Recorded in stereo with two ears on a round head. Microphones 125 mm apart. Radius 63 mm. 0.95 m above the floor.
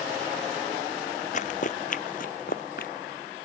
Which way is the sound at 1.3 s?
55° left (ahead or behind).